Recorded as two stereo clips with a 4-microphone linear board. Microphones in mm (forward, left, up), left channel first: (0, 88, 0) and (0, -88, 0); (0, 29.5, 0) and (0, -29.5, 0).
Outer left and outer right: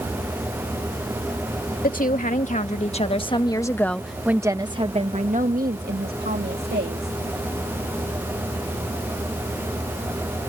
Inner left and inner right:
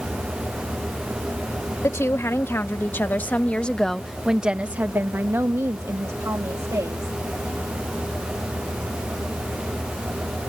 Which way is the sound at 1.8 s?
55° left (ahead or behind).